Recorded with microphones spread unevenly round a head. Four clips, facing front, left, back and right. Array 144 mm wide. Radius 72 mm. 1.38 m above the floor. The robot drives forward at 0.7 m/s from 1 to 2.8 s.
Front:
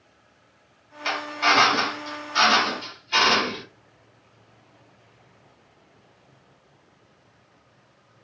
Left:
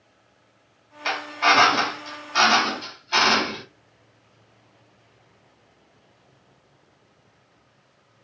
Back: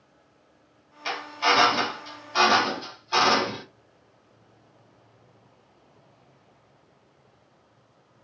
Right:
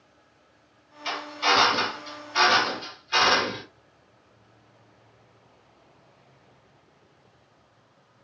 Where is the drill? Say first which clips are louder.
Left 4 dB, front 2 dB; 90° left, 1.0 m; by 3.6 s 150° left, 1.6 m.